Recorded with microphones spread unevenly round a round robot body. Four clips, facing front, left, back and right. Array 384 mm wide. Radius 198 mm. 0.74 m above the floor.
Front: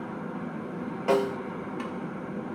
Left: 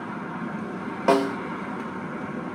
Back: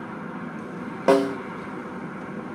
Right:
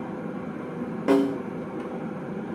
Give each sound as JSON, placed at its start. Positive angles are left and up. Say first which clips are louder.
{"t": 1.1, "sound": "a snare drum", "louder": "even, back 6 dB", "azimuth_deg": -170, "distance_m": 0.6}